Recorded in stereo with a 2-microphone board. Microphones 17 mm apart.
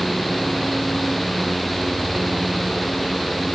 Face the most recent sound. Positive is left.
No sound to turn to.